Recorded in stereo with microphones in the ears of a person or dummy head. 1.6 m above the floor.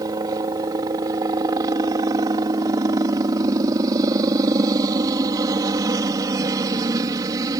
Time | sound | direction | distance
0.0 | a helicopter | 20° right (ahead or behind) | ?